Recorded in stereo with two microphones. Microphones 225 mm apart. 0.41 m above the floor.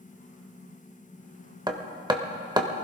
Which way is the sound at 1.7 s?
20° right (ahead or behind).